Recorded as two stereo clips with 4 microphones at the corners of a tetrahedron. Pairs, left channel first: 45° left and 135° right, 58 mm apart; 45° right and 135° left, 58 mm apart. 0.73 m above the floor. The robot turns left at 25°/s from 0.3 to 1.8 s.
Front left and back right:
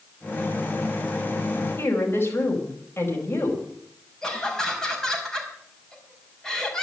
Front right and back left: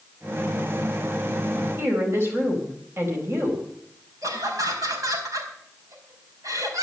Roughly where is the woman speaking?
Left.